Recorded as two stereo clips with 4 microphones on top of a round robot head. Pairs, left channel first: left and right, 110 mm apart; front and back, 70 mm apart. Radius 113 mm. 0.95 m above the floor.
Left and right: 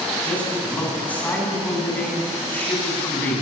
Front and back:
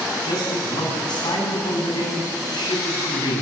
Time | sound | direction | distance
0.2 | a man speaking | 15° left | 9.5 m